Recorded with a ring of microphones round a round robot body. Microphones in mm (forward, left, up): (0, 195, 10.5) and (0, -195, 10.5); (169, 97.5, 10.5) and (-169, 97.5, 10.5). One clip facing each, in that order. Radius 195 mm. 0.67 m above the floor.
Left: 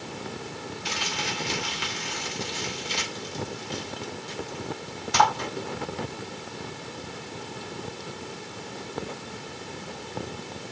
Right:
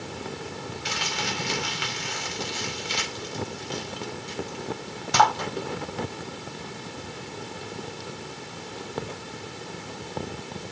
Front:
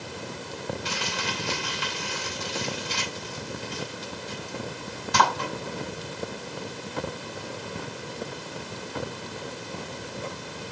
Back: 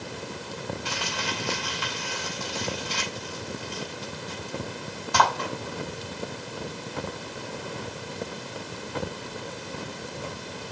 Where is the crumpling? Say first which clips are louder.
Right 1 dB, even; 70° right, 5 m.